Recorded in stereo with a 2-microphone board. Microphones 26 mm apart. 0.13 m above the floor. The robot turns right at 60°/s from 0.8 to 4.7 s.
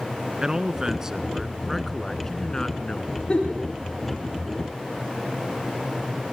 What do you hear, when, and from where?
0.4 s a man speaking: 55° right, 1.4 m; by 3.2 s 90° left, 1.4 m
3.3 s a giggle: 30° left (ahead or behind), 7 m; by 3.6 s 15° left (ahead or behind), 7 m